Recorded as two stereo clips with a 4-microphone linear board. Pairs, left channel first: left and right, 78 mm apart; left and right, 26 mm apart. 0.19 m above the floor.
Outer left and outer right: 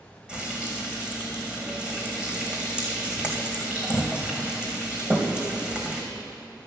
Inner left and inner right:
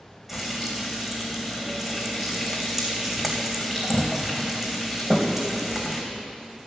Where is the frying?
10° right (ahead or behind), 2 m.